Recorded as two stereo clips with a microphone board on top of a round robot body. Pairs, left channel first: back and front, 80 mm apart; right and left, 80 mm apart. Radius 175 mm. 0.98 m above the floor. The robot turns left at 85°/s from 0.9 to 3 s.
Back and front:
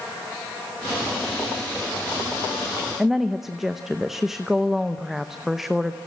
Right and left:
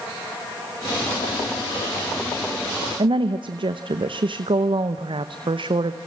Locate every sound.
3.0 s a woman speaking: 85° left, 1.0 m